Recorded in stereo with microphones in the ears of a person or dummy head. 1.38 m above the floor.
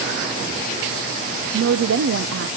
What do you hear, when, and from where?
1.5 s a woman speaking: 85° right, 0.7 m